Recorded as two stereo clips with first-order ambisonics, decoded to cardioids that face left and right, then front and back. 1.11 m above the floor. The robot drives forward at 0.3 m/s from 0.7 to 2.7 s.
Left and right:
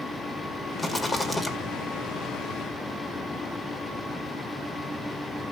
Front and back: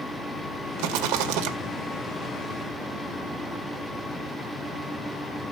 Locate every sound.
0.8 s a rattle: 175° left, 1.9 m